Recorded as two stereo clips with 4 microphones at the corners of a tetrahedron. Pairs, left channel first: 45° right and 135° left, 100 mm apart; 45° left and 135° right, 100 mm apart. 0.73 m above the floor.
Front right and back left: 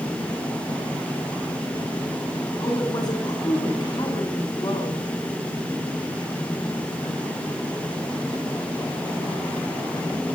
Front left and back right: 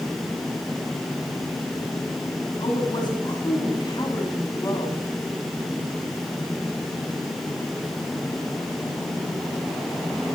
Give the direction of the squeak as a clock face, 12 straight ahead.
No squeak in this recording.